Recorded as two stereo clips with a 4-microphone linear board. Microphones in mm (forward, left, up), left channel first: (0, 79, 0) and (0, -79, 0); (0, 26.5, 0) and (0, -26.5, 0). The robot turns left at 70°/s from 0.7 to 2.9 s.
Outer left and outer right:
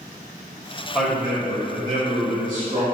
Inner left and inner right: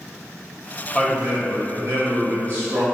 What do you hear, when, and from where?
0.9 s a man speaking: straight ahead, 1.6 m; by 2.9 s 130° right, 1.6 m